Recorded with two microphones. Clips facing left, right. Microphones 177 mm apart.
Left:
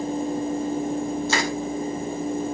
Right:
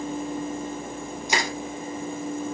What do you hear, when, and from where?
1.3 s crushing: 15° right (ahead or behind), 3.5 m